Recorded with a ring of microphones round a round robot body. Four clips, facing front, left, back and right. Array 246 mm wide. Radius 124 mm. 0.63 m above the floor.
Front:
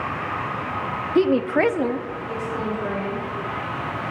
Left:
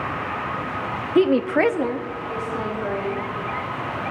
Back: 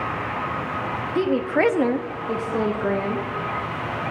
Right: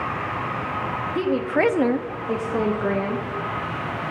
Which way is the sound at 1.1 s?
60° left.